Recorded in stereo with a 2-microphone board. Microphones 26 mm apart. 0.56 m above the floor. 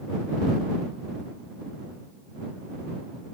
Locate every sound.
Only background noise.